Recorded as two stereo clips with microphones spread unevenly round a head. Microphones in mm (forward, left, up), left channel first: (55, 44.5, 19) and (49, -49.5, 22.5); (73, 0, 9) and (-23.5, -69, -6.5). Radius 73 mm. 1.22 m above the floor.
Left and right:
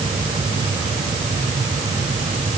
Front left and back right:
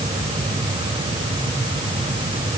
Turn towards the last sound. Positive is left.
No sound to turn to.